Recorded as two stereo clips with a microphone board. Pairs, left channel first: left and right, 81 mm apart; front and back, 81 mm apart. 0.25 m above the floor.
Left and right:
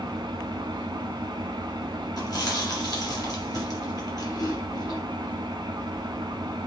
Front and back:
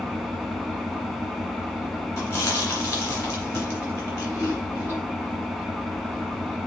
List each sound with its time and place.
0.0 s an engine running: 90° right, 0.9 m
2.2 s chewing: 55° left, 2.0 m